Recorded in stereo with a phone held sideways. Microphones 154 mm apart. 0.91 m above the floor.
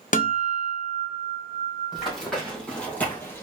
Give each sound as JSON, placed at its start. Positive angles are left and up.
{"t": 0.1, "sound": "a guitar", "side_deg": 55, "distance_m": 0.6}
{"t": 1.9, "sound": "running footsteps", "side_deg": 0, "distance_m": 2.0}